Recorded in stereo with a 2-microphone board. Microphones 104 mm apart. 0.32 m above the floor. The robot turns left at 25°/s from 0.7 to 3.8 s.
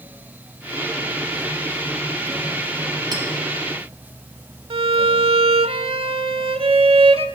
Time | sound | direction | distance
3.1 | a clink | 45° right (ahead or behind) | 4.5 m
4.7 | a violin | 65° right (ahead or behind) | 0.5 m